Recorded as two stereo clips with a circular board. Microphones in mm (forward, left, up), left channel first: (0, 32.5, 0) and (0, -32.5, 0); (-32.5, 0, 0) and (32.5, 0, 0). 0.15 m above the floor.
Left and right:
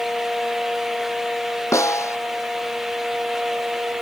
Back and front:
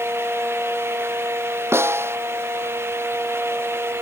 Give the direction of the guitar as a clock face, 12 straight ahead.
No guitar in this recording.